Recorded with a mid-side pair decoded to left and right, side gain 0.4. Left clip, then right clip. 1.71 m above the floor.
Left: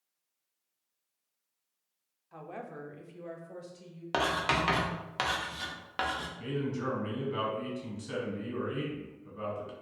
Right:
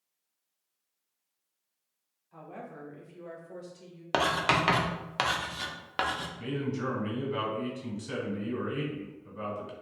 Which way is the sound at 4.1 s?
25° right.